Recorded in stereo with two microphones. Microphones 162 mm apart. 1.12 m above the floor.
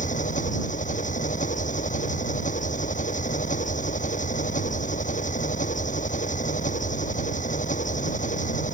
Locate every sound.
0.0 s an engine running: 50° left (ahead or behind)